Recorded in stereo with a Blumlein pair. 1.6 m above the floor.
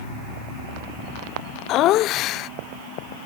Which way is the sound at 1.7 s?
35° left.